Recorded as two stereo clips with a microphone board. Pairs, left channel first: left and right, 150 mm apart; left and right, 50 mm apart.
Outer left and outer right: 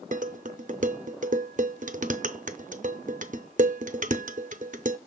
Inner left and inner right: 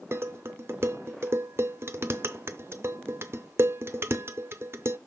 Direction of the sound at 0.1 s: 60° right (ahead or behind).